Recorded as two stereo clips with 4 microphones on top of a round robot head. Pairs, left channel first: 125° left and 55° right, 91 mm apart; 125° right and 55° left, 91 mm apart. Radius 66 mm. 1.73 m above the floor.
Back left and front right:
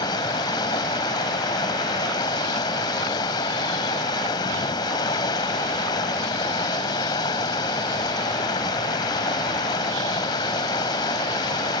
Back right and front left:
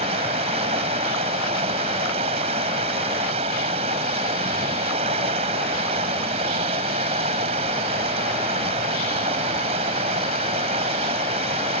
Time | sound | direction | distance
0.0 | running water | 75° left | ?